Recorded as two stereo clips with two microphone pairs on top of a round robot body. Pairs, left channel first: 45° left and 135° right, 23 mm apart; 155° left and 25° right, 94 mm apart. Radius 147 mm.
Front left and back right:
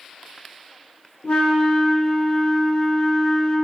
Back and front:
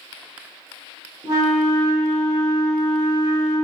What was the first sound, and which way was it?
A flute, 25° left.